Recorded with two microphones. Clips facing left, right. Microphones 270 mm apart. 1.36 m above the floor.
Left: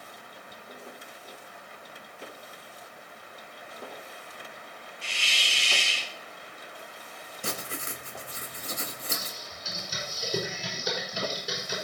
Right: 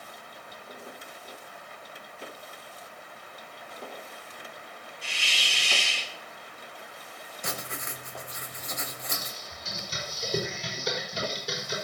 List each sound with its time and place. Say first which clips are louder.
5.0 s a hiss: even; 30° left (ahead or behind), 5 m
7.4 s writing: left 2 dB; 35° left (ahead or behind), 1.2 m
9.1 s typing on a keyboard: left 1 dB; 5° left (ahead or behind), 5 m